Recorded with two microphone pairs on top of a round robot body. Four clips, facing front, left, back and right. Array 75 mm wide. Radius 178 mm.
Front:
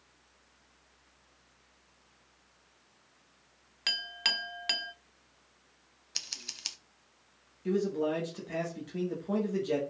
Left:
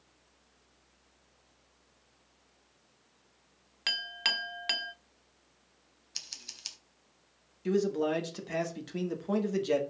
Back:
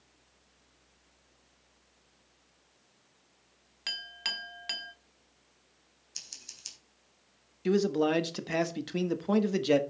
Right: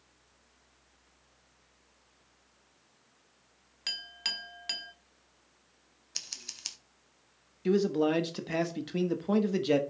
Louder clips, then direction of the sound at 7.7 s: Right 2 dB, back 4 dB; 150° right.